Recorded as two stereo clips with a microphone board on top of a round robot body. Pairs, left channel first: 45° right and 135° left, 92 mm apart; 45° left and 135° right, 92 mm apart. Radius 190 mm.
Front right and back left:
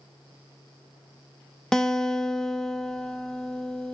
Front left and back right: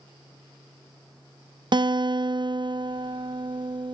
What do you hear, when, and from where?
1.7 s a guitar: 125° right, 0.7 m